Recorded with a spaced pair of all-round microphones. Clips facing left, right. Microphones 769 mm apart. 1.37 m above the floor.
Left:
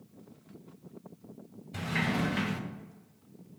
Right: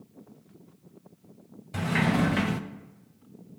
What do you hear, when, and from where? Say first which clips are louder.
1.7 s a sliding door: right 6 dB; 75° right (ahead or behind), 0.5 m